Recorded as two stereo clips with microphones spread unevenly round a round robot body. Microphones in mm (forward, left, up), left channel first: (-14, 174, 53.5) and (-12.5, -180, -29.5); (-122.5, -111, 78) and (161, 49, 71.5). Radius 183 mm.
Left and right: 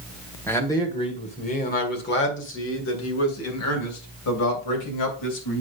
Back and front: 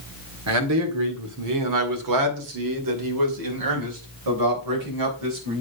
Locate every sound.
0.5 s a man speaking: straight ahead, 2.0 m; by 5.6 s 50° left, 3.5 m